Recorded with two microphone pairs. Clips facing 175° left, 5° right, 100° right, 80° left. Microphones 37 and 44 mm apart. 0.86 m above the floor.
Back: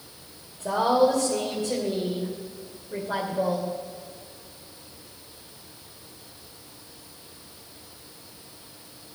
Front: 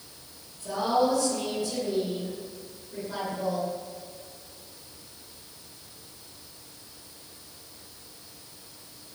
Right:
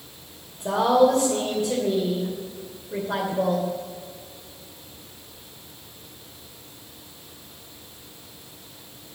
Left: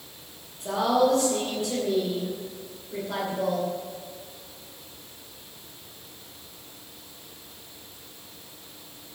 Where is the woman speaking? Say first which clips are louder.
Back 4 dB, right 4 dB; 150° right, 3 m.